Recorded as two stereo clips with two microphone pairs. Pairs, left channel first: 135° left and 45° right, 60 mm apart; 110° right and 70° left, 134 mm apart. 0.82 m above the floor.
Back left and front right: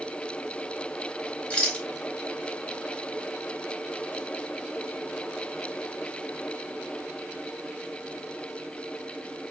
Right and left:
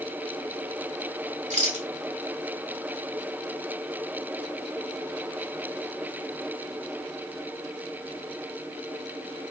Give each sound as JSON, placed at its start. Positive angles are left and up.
{"t": 1.5, "sound": "a rattle", "azimuth_deg": 70, "distance_m": 1.5}